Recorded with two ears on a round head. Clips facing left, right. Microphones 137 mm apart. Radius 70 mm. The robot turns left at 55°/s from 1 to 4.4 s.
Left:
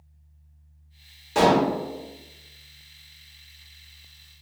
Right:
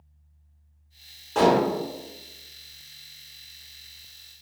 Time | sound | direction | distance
1.4 | dishes clattering | 10° left (ahead or behind) | 0.7 m